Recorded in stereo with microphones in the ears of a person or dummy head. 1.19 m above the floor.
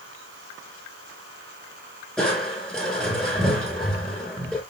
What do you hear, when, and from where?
2.2 s crushing: centre (ahead or behind), 5.5 m